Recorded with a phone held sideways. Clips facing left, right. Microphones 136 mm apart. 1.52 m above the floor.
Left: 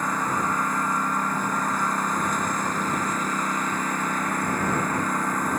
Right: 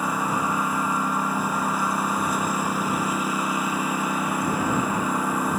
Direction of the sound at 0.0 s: 10° right (ahead or behind).